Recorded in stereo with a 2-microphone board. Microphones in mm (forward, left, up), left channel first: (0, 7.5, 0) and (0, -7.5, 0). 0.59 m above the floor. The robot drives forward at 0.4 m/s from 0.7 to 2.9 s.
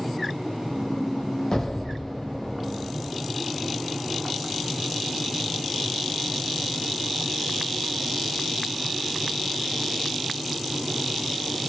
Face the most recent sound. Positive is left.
turn(degrees=25)  # may be behind; listen again after turning